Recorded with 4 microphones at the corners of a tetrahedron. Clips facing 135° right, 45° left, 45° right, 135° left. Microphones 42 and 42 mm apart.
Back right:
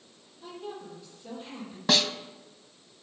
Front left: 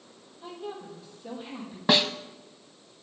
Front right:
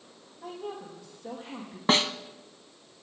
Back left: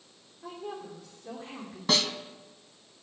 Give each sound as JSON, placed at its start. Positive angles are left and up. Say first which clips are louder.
{"t": 0.4, "sound": "a woman speaking", "louder": "front left 2 dB, front right 1 dB", "azimuth_deg": -30, "distance_m": 5.5}
{"t": 1.9, "sound": "a snare drum", "louder": "front left 2 dB, front right 3 dB", "azimuth_deg": -15, "distance_m": 0.5}